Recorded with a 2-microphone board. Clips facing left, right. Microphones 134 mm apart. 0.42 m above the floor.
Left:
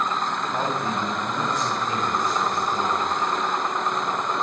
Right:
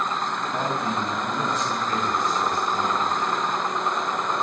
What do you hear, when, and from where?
0.5 s a man speaking: 15° left (ahead or behind), 1.1 m